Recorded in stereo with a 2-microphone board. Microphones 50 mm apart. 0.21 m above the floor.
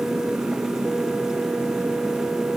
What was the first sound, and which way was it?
Only background noise.